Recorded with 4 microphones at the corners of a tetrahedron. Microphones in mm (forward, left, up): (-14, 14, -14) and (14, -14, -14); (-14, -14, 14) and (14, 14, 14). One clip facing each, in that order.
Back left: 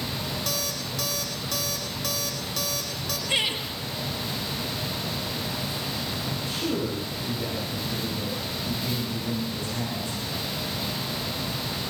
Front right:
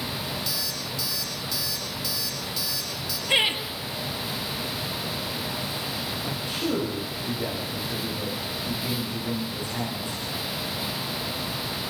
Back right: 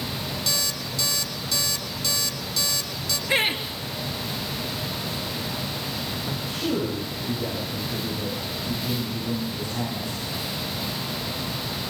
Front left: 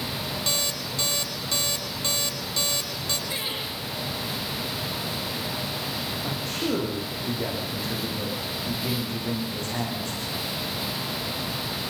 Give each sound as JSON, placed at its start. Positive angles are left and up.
{"t": 0.5, "sound": "an alarm clock", "azimuth_deg": 100, "distance_m": 3.0}
{"t": 3.3, "sound": "laughter", "azimuth_deg": -115, "distance_m": 3.5}
{"t": 6.2, "sound": "a man speaking", "azimuth_deg": 25, "distance_m": 9.0}